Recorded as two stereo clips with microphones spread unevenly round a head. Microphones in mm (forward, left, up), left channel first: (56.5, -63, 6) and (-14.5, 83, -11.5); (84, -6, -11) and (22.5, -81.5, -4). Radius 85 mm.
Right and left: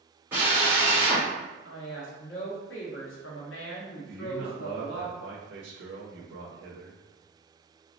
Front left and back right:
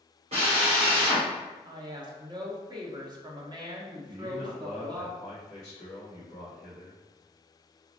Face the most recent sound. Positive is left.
turn(degrees=115)